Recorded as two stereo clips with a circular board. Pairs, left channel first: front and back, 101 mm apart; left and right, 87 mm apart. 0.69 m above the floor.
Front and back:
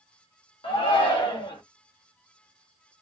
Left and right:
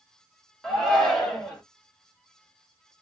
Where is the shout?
10° left, 1.3 m.